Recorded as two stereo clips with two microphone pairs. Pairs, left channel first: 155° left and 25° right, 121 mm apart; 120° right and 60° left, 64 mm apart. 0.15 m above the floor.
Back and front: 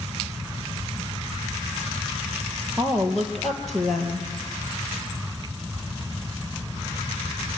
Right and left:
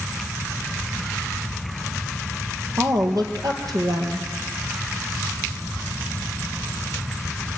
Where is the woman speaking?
65° left, 3.5 m.